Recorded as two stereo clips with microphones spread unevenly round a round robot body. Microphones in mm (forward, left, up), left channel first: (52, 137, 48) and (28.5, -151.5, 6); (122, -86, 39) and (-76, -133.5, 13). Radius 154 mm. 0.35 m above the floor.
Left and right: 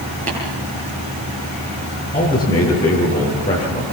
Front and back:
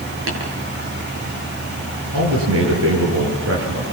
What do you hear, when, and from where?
0.3 s tapping: 160° right, 8.5 m
2.1 s a man speaking: 165° left, 7 m